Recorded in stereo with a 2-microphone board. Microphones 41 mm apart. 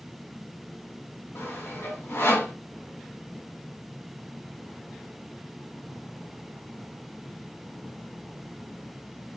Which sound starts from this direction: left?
Sawing, at 1.4 s.